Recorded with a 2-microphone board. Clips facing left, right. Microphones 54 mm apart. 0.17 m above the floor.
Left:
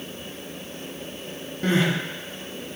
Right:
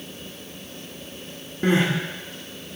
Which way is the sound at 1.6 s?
20° right (ahead or behind).